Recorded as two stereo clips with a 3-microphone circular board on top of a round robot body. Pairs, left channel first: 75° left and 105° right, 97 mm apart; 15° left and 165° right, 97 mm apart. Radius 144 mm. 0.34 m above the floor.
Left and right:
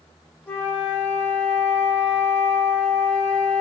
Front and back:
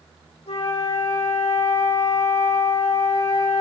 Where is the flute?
5° left, 6 m.